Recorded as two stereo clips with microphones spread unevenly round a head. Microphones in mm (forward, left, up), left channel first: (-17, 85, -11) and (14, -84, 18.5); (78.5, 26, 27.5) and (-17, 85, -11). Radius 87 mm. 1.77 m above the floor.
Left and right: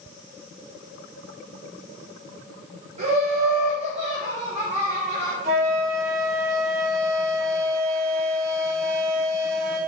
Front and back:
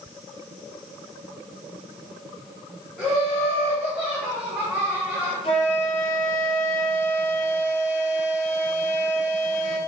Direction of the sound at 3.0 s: 105° right.